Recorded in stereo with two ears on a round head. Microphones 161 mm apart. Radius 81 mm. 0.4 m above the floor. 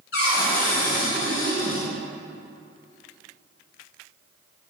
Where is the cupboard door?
75° left (ahead or behind), 2.5 m.